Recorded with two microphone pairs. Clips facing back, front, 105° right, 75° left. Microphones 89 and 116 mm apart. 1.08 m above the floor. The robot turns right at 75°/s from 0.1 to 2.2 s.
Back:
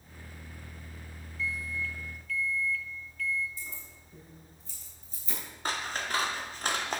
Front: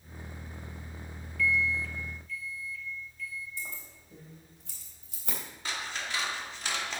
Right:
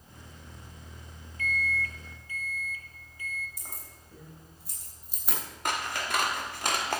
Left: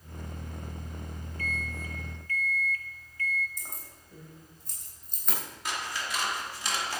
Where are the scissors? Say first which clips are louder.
Back 4 dB, right 4 dB; 135° right, 1.2 m.